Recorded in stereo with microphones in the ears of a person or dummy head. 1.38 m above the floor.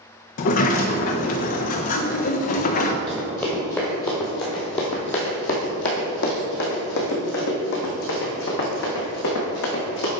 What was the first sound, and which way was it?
A sliding door, 40° left (ahead or behind).